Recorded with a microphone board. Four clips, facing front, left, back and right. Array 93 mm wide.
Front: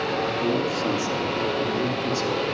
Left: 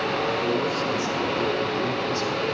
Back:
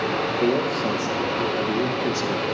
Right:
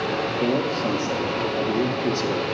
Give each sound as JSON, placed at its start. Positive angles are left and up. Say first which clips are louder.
{"t": 0.4, "sound": "a man speaking", "louder": "right 2 dB, back 4 dB", "azimuth_deg": -155, "distance_m": 4.0}